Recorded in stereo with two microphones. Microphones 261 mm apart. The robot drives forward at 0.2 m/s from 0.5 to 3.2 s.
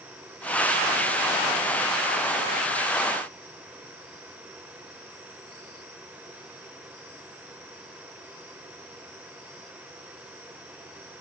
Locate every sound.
Only background noise.